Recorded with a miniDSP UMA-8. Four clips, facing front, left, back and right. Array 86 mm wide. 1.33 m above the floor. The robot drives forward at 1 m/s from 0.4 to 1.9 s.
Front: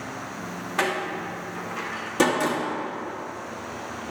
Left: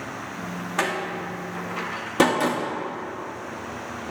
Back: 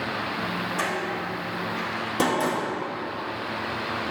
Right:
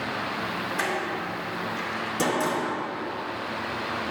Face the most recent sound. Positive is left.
turn(degrees=85)